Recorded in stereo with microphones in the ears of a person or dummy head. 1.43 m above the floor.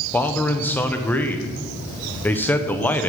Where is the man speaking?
10° left (ahead or behind), 0.8 m.